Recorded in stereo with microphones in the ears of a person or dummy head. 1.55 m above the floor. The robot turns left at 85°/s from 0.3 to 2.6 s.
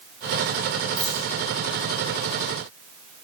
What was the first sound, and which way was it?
A dropped coin, 15° right (ahead or behind).